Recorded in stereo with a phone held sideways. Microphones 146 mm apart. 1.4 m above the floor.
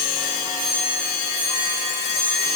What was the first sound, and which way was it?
Only background noise.